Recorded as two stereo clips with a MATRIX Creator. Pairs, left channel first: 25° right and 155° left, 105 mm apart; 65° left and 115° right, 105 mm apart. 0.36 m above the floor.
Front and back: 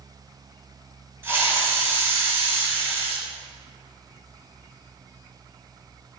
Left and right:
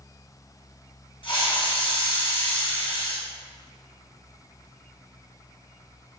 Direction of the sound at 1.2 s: 95° left.